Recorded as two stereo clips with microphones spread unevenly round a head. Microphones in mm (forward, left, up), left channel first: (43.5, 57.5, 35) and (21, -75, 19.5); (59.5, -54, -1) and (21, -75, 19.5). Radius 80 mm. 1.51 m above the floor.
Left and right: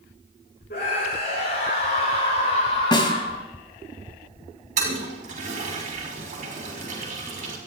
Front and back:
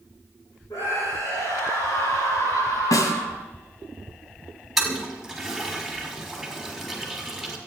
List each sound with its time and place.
0.7 s a scream: 60° left, 5.5 m; by 3.4 s 45° left, 3.5 m
2.9 s a snare drum: 30° left, 2.5 m
4.8 s a toilet flushing: 65° right, 5.5 m